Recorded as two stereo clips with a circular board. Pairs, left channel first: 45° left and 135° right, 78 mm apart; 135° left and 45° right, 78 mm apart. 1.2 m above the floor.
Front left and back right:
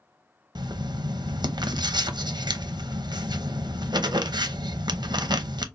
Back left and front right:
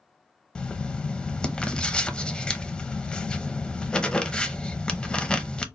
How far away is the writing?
About 0.5 m.